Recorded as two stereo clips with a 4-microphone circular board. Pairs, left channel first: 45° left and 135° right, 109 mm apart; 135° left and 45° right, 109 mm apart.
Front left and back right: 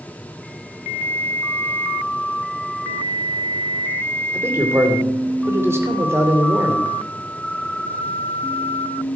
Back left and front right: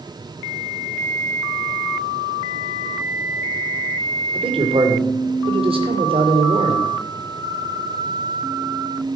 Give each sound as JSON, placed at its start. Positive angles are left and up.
{"t": 4.3, "sound": "a man speaking", "azimuth_deg": -70, "distance_m": 2.5}